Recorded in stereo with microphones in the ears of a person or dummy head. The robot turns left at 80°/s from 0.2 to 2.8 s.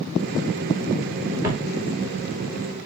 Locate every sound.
1.4 s footsteps: 15° right (ahead or behind), 1.5 m; by 1.6 s 20° right (ahead or behind), 1.5 m